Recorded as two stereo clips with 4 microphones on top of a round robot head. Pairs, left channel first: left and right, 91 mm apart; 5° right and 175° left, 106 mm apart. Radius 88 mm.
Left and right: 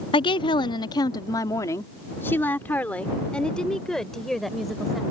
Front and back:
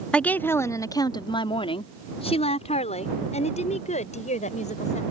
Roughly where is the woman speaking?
Left.